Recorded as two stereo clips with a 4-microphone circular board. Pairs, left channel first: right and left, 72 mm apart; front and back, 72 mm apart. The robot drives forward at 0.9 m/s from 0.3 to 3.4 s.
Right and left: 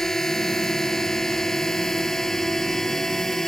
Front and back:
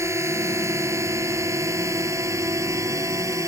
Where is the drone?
170° right.